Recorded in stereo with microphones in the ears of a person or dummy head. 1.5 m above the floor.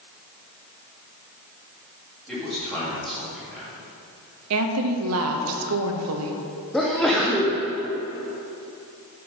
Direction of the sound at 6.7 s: 10° left (ahead or behind).